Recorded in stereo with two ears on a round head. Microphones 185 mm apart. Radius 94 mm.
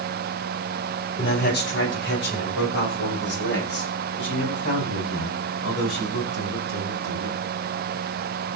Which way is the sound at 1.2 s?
55° left (ahead or behind).